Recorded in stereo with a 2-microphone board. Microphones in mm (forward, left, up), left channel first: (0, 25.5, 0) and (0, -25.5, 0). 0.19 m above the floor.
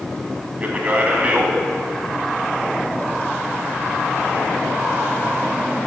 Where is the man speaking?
30° right (ahead or behind), 1.2 m.